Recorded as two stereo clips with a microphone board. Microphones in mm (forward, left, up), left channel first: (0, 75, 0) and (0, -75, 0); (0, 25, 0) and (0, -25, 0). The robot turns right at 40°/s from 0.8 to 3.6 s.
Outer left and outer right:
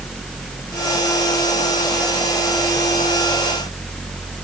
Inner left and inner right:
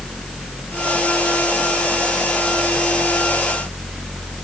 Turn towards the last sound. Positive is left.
No sound to turn to.